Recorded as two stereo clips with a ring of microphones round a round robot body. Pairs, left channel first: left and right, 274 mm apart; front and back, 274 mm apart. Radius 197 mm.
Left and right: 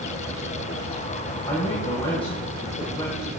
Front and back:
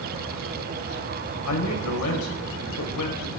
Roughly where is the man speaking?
Ahead.